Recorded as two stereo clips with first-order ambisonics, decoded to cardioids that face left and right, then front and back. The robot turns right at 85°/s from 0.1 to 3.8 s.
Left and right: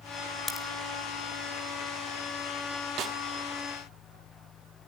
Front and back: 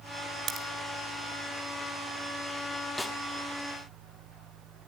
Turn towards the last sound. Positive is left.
turn(degrees=-10)